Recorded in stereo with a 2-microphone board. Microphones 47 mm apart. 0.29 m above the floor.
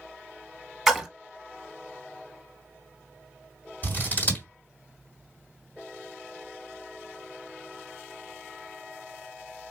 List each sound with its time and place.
0.9 s a splash: 5° right (ahead or behind), 0.8 m
3.8 s scissors: 40° left (ahead or behind), 2 m